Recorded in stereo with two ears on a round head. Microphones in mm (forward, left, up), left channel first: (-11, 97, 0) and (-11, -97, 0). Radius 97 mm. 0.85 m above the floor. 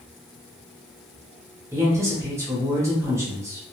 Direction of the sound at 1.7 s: 15° right (ahead or behind).